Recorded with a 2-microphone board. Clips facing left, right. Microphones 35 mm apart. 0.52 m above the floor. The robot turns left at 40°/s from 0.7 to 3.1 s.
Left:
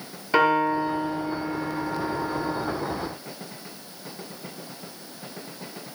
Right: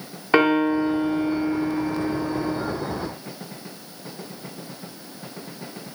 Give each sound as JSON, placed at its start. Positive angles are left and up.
{"t": 0.3, "sound": "a piano", "azimuth_deg": -50, "distance_m": 1.3}